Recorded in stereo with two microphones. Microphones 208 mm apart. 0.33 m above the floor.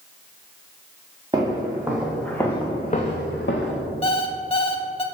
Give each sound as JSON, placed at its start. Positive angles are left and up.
{"t": 1.3, "sound": "footsteps", "side_deg": -20, "distance_m": 1.8}
{"t": 4.0, "sound": "an alarm clock", "side_deg": 25, "distance_m": 0.6}